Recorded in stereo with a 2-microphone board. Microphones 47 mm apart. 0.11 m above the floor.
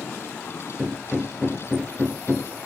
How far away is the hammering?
About 1.8 m.